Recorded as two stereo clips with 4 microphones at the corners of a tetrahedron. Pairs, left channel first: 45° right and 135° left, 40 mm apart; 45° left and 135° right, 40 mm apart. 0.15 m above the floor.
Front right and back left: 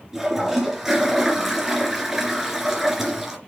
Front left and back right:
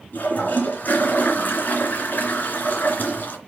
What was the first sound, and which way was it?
A toilet flushing, 55° left.